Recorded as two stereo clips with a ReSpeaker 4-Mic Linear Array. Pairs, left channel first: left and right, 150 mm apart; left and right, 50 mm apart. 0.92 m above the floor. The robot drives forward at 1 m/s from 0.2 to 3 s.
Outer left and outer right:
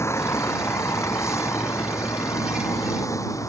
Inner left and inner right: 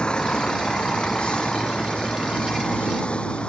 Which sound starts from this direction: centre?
A vehicle, at 0.0 s.